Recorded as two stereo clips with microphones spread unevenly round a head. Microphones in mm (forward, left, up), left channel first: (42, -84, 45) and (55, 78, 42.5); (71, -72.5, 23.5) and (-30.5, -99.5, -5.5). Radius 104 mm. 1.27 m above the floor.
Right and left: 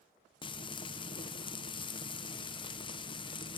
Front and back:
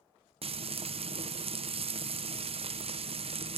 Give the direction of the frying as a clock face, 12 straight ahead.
5 o'clock.